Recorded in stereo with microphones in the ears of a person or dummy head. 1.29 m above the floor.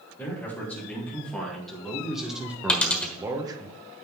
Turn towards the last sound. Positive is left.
turn(degrees=5)  # may be behind; listen again after turning